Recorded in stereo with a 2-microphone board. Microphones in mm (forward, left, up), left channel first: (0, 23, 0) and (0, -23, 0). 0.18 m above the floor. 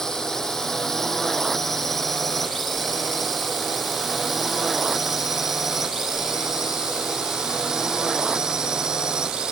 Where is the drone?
10° left (ahead or behind); by 9.5 s 15° right (ahead or behind).